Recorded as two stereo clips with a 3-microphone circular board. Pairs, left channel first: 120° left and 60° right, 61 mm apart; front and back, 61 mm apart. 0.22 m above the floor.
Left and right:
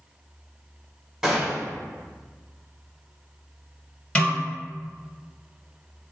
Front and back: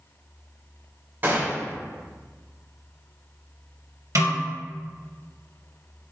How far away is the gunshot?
About 1.7 m.